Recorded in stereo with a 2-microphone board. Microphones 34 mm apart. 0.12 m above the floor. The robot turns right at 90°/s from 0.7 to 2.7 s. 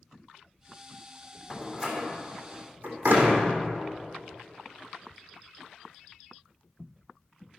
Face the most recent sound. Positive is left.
turn(degrees=-75)  # may be behind; listen again after turning